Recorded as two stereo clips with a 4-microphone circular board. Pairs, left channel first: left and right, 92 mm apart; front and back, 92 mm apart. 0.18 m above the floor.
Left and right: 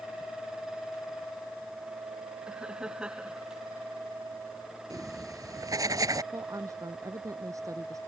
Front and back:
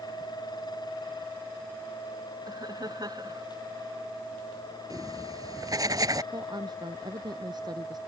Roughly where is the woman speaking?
Behind right.